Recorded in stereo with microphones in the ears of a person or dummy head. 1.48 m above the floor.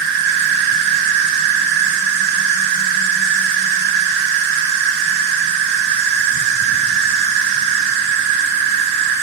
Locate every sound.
0.0 s an insect: 55° right (ahead or behind), 1.0 m